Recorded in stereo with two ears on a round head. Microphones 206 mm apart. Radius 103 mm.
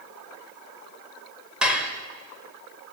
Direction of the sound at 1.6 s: 5° right (ahead or behind).